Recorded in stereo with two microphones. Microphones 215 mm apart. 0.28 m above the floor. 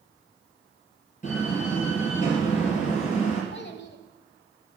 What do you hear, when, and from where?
1.2 s a door slam: 35° left (ahead or behind), 3.5 m
3.5 s a child speaking: 55° left (ahead or behind), 1.0 m